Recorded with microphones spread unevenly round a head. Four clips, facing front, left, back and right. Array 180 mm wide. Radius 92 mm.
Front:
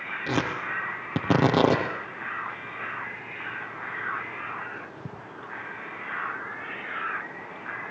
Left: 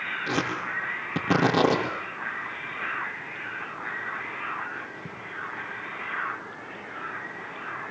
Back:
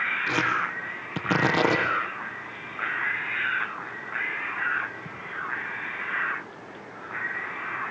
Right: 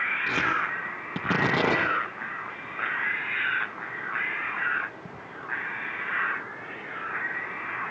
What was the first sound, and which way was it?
Tearing paper, 10° left.